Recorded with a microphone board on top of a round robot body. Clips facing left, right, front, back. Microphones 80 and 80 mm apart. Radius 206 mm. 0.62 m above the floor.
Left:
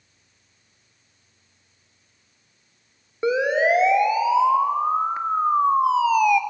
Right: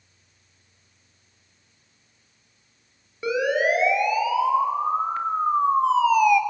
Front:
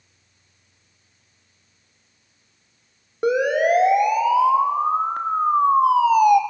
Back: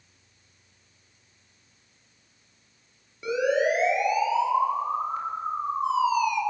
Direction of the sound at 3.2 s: 30° left.